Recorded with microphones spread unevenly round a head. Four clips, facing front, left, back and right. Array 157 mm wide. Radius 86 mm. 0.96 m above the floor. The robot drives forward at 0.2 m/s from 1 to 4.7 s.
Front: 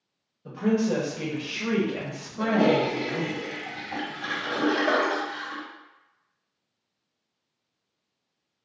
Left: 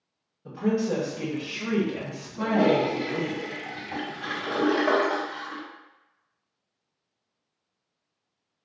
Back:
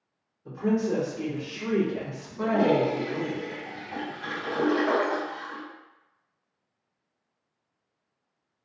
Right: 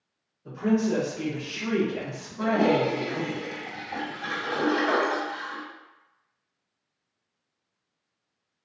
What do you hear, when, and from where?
0.5 s a woman speaking: 20° left, 1.7 m; by 3.4 s 25° left, 1.3 m
2.4 s a toilet flushing: 85° left, 1.9 m; by 5.6 s 100° left, 1.9 m